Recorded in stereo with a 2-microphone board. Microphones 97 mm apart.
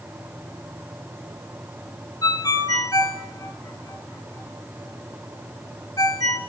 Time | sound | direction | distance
2.2 | a ringtone | 40° left (ahead or behind) | 1.5 m